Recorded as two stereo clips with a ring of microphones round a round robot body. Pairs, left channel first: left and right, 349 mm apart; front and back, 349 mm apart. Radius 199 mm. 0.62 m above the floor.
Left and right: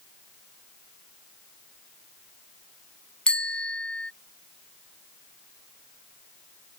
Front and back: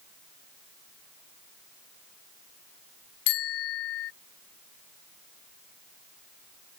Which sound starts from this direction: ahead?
A bicycle bell, at 3.3 s.